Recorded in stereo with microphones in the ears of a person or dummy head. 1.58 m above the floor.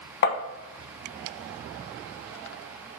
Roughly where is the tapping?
Left.